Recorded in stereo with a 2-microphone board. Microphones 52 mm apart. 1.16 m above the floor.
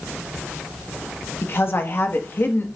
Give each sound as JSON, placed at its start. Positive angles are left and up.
{"t": 1.4, "sound": "a woman speaking", "side_deg": 45, "distance_m": 1.3}